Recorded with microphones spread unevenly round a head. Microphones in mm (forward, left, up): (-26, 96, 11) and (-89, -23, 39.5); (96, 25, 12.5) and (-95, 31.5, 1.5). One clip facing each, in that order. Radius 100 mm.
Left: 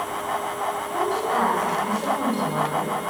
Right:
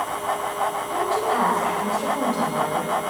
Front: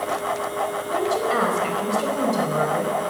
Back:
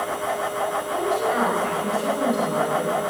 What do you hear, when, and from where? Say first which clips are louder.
0.9 s a woman speaking: even, front 1 dB; 40° right, 4.5 m